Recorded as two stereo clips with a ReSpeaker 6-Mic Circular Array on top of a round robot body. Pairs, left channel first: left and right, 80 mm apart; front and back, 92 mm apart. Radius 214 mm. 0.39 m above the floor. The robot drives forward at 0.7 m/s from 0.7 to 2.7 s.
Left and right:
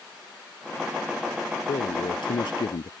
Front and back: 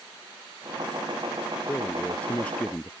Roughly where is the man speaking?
Left.